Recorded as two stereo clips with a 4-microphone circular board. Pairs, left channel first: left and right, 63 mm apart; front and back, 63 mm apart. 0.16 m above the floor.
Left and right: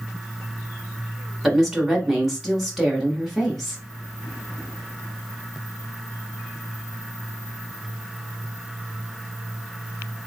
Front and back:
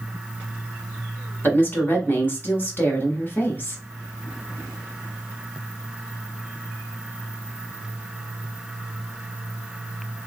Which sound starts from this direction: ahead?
A woman speaking, at 1.4 s.